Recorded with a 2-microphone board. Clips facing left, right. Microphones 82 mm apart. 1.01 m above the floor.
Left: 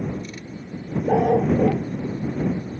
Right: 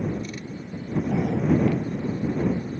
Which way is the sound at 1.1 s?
70° left (ahead or behind).